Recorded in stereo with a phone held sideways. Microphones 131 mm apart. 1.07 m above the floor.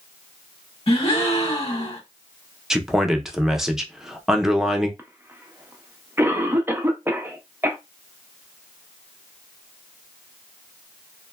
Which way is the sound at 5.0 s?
15° right (ahead or behind).